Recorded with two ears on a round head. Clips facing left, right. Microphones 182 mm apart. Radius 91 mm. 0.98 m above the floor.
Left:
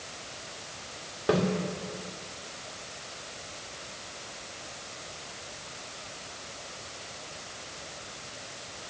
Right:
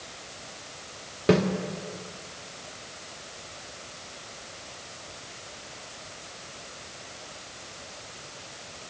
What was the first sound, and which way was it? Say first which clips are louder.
A snare drum: right 4 dB; 30° right (ahead or behind).